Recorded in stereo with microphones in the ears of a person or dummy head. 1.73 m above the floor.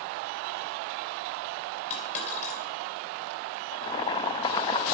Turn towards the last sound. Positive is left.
turn(degrees=20)  # may be behind; listen again after turning